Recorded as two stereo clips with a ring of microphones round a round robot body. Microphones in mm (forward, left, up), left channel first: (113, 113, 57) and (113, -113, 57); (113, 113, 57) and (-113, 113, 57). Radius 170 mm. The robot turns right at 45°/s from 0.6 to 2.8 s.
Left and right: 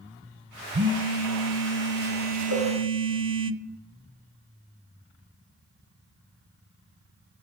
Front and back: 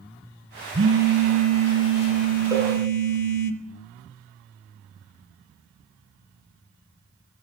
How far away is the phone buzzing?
About 0.8 m.